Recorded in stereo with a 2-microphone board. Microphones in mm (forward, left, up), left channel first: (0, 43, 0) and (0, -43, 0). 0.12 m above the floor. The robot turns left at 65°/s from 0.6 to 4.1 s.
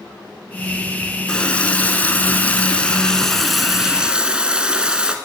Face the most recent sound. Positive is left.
turn(degrees=-10)  # may be behind; listen again after turning